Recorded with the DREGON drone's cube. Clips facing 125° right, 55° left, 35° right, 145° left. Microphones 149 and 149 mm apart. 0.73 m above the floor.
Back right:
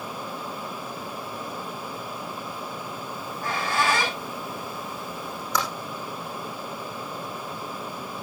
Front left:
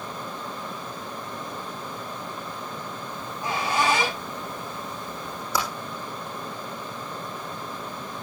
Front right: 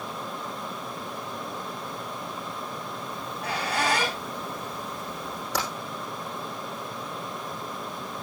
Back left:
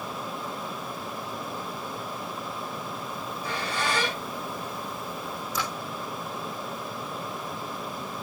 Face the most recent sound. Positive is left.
turn(degrees=-25)